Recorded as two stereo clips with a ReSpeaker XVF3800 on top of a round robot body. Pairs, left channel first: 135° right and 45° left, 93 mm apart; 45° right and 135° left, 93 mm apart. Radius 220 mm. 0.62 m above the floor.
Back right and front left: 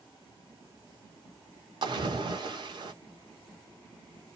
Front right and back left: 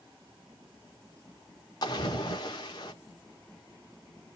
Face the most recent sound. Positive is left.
turn(degrees=5)